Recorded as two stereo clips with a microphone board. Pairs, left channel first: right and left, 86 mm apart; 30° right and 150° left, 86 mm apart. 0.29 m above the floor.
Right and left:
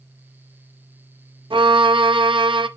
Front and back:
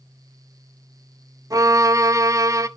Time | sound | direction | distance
1.5 | a violin | 105° left | 0.7 m